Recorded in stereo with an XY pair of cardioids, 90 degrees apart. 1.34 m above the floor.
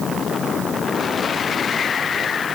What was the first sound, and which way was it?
Only background noise.